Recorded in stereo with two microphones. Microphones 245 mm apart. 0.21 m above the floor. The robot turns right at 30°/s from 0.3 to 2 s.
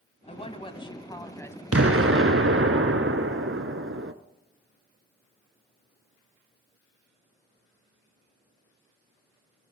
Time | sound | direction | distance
0.3 | a woman speaking | 125° left | 1.1 m
1.7 | an explosion | 65° right (ahead or behind) | 0.7 m